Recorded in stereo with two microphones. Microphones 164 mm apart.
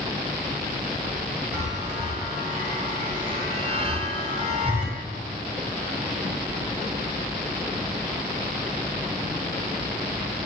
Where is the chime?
40° right (ahead or behind), 2 m.